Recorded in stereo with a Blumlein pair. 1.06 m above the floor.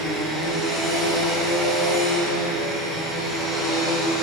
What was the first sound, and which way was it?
A machine running, straight ahead.